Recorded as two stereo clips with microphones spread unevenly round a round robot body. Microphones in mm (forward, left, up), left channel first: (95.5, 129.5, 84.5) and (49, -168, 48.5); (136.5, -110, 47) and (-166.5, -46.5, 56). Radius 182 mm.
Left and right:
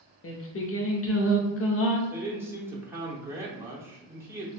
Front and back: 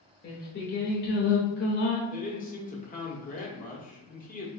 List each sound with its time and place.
0.2 s singing: 40° left, 0.7 m
2.1 s a man speaking: 35° right, 1.0 m